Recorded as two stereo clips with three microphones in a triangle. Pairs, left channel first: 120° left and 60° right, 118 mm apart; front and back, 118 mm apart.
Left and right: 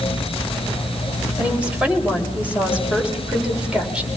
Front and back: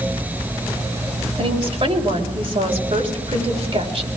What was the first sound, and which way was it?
A woman speaking, 140° right.